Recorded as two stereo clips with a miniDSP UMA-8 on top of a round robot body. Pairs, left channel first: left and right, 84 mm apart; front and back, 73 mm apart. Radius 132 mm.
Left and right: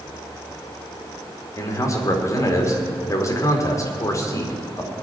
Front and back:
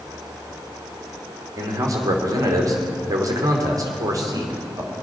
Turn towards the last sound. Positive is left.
turn(degrees=140)